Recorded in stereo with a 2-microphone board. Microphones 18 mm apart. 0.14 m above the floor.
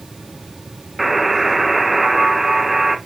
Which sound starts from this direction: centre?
A buzzer, at 1.0 s.